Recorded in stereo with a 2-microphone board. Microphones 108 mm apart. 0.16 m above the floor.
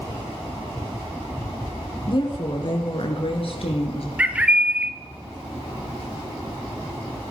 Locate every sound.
2.1 s a woman speaking: 50° left (ahead or behind), 1.8 m; by 4.1 s 65° left (ahead or behind), 3 m
4.2 s a bird: 10° right (ahead or behind), 0.8 m